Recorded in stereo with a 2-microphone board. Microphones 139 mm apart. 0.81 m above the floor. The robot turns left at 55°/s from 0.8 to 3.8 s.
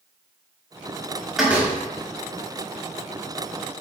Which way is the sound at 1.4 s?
Centre (ahead or behind).